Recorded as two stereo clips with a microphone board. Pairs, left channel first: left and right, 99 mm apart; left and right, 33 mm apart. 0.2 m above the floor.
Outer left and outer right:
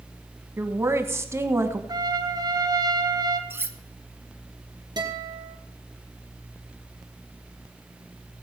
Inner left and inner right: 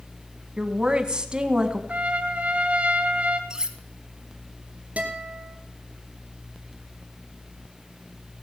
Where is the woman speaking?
25° right (ahead or behind), 1.3 m.